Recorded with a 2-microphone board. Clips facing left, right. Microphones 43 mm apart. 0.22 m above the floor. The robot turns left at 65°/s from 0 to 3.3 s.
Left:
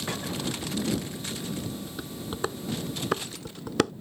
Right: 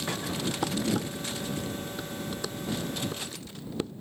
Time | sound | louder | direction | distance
0.6 | dishes clattering | right 3 dB | 80° right | ?